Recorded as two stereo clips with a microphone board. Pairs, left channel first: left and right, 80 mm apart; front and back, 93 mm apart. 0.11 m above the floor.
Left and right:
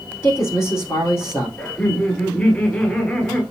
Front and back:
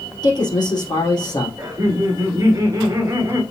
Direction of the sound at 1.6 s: 155° left.